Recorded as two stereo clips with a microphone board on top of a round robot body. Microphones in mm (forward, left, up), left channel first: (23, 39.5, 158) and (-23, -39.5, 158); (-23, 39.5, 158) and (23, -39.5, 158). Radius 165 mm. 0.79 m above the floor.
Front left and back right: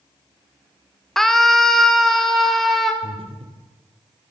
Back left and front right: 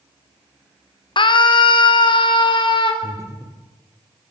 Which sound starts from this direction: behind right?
Breathing, at 3.0 s.